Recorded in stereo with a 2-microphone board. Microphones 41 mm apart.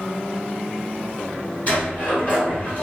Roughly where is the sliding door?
Left.